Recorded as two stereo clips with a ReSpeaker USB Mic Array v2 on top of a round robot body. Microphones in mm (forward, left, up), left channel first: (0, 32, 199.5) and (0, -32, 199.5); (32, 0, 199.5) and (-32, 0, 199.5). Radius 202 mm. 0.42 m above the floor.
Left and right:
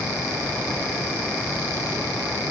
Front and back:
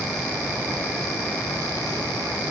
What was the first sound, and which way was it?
Only background noise.